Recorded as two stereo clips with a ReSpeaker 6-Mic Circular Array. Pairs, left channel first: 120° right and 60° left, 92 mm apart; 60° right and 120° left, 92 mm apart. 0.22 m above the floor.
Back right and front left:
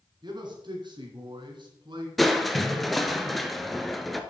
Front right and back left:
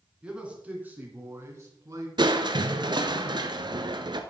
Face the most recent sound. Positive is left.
turn(degrees=150)